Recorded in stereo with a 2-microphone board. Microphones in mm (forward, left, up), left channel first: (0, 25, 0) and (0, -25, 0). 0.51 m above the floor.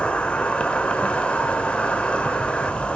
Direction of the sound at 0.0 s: 25° left (ahead or behind).